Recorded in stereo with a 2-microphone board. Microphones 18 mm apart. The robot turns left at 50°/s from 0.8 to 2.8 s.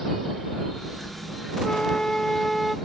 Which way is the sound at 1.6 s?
65° left.